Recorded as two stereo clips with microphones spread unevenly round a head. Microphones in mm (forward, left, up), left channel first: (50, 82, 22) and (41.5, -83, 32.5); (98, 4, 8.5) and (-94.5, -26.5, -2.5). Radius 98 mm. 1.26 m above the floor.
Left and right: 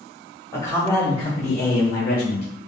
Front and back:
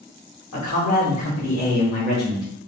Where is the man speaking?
15° left, 1.6 m; by 2.5 s 85° left, 1.0 m.